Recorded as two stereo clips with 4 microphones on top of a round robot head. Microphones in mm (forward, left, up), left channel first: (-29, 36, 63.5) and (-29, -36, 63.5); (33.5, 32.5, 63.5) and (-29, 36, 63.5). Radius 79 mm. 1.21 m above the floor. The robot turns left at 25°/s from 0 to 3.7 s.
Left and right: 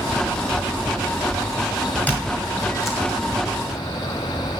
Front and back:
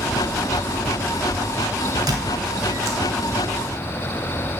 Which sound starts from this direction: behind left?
A squeak, at 2.1 s.